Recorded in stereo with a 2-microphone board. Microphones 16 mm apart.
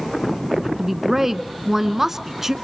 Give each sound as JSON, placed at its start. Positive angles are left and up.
{"t": 0.8, "sound": "a woman speaking", "side_deg": -20, "distance_m": 1.0}